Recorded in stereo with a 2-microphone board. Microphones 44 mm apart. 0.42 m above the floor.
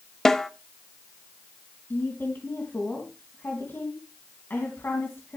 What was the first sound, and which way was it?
A snare drum, 10° left (ahead or behind).